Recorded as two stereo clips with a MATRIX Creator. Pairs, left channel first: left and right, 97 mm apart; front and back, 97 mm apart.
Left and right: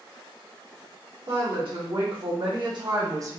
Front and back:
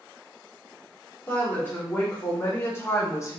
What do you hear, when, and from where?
1.3 s a woman speaking: 70° right, 1.9 m; by 3.4 s 40° right, 0.7 m